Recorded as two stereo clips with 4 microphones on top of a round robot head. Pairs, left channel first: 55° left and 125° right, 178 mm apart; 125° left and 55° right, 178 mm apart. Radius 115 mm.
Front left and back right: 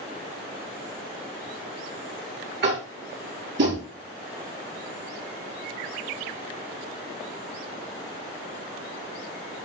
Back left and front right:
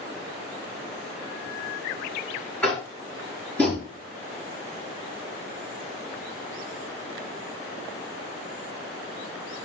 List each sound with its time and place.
2.6 s tapping: 155° right, 5 m